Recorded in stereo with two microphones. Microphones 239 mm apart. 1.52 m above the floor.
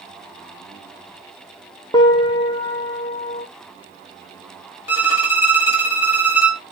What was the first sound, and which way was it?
A piano, 15° left (ahead or behind).